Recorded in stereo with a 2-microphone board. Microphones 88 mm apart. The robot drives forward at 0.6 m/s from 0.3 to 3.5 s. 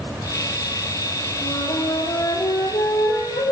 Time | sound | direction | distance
1.4 | a flute | 65° left (ahead or behind) | 4.5 m